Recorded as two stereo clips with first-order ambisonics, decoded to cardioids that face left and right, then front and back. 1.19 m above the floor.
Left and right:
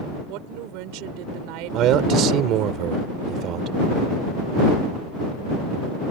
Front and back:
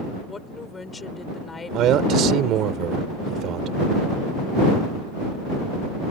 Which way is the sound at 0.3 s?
75° right.